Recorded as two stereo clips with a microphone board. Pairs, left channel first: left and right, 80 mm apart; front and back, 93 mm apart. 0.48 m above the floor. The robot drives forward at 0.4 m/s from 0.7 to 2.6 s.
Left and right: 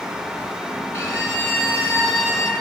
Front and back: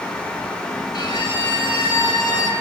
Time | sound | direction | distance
0.9 | a violin | 35° left | 4.5 m